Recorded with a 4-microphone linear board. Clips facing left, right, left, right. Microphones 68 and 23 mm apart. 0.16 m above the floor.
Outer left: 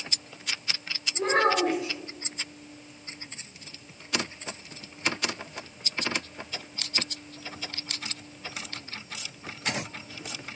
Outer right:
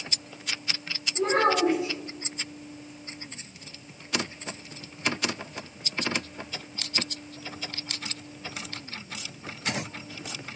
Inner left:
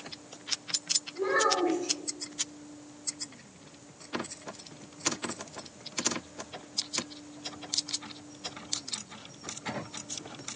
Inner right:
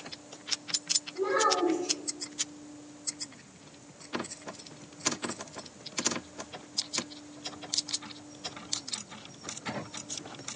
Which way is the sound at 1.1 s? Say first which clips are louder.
Outer right 1 dB, even; 35° left (ahead or behind).